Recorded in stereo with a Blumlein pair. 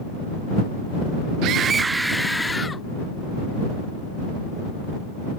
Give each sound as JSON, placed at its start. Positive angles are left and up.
{"t": 1.4, "sound": "a scream", "azimuth_deg": -40}